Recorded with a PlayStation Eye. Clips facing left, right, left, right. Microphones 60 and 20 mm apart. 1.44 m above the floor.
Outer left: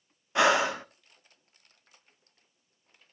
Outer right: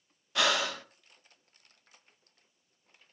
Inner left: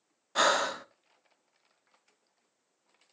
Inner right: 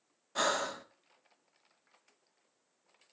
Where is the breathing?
25° left (ahead or behind), 0.7 m.